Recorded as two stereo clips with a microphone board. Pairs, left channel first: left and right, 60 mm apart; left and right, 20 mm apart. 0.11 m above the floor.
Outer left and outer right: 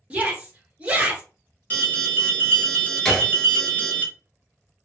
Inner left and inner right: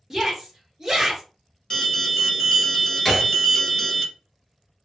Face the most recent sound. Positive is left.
turn(degrees=10)  # may be behind; listen again after turning